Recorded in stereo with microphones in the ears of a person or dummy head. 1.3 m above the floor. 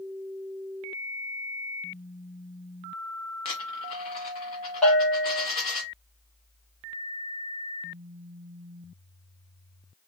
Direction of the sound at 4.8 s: Centre (ahead or behind).